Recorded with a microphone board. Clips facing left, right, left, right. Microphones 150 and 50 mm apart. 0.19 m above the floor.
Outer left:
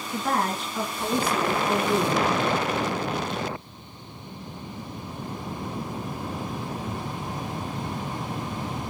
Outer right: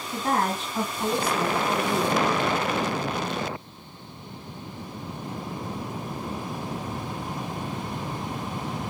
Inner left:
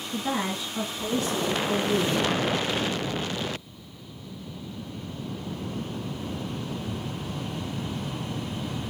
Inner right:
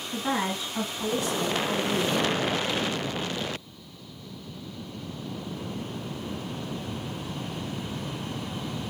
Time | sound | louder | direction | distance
0.1 | a woman speaking | outer right 1 dB, inner right 1 dB | 30° right (ahead or behind) | 1.9 m